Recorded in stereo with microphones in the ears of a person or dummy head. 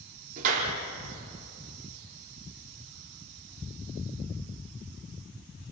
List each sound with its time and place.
0.4 s a clap: 50° right (ahead or behind), 4 m